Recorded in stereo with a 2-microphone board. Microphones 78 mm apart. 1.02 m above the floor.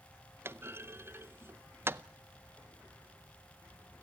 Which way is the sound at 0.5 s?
30° right (ahead or behind).